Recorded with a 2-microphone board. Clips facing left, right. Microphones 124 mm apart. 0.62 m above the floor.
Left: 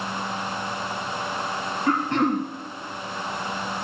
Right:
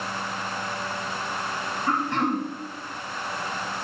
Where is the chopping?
I don't hear chopping.